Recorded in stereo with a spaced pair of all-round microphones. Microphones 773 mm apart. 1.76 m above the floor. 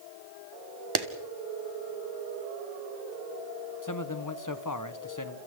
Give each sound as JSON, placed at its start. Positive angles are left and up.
{"t": 0.9, "sound": "a clap", "side_deg": -30, "distance_m": 1.4}
{"t": 3.8, "sound": "a man speaking", "side_deg": 25, "distance_m": 1.6}